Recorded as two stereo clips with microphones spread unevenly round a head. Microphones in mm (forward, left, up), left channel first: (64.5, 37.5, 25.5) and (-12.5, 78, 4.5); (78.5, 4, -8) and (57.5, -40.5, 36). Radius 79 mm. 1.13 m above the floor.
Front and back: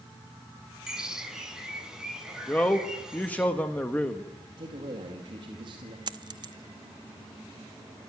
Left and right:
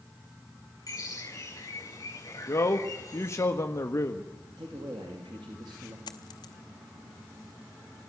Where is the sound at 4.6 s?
170° right, 2.5 m.